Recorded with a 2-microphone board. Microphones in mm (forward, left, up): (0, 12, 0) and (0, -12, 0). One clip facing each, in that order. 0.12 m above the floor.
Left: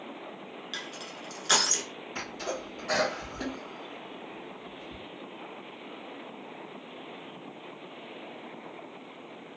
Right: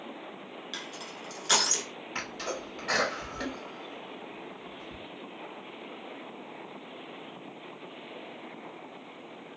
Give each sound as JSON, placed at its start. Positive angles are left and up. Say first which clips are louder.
{"t": 0.7, "sound": "crushing", "louder": "left 1 dB", "side_deg": 10, "distance_m": 0.7}
{"t": 2.1, "sound": "a sneeze", "louder": "even", "side_deg": -20, "distance_m": 1.5}